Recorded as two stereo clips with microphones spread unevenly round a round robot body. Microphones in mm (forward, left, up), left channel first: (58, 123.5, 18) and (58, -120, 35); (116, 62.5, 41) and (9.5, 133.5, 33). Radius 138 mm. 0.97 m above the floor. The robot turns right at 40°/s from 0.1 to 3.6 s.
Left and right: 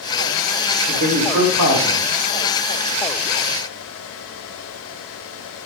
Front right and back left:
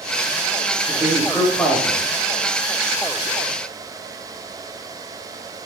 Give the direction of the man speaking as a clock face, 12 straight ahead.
5 o'clock.